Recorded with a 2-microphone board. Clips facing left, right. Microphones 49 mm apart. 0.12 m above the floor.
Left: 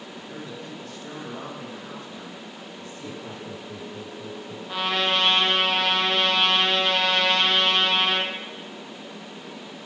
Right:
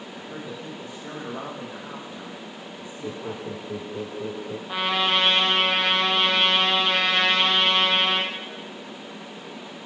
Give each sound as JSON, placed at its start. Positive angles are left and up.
{"t": 0.1, "sound": "a man speaking", "side_deg": -20, "distance_m": 6.0}
{"t": 3.0, "sound": "laughter", "side_deg": -50, "distance_m": 2.0}
{"t": 4.7, "sound": "a trumpet", "side_deg": -10, "distance_m": 4.0}